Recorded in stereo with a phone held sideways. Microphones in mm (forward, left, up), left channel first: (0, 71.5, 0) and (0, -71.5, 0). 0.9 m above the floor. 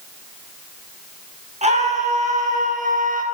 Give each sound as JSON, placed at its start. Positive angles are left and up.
{"t": 1.6, "sound": "a scream", "side_deg": -45, "distance_m": 8.5}